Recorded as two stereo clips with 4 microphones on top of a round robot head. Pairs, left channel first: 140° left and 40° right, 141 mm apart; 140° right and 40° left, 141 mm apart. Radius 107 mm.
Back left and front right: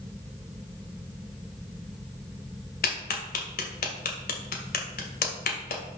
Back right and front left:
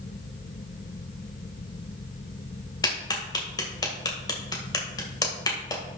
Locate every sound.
2.8 s a clap: 155° left, 2 m